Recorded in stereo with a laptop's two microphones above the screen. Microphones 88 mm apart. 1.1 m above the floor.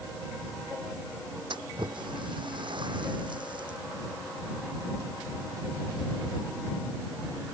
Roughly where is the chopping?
I don't hear chopping.